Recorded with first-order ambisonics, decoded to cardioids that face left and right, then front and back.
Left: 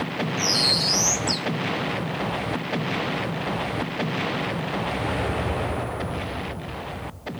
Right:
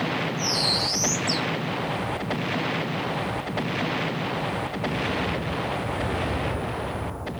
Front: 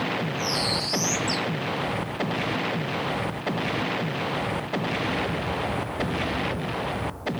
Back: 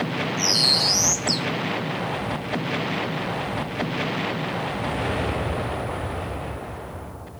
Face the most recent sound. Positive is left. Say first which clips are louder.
# left 4 dB, back 9 dB
turn(degrees=160)